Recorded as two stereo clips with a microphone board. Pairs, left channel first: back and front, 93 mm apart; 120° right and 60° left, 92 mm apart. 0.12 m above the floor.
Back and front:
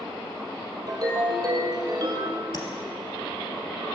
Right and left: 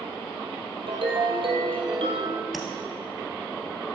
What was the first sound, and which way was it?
A ringtone, 45° left.